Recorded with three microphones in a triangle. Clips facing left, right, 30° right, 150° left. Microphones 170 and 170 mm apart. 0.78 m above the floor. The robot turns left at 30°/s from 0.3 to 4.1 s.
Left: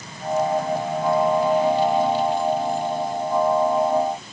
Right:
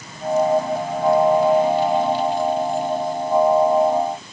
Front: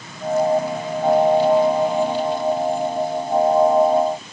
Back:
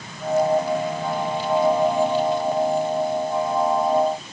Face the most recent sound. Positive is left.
No sound to turn to.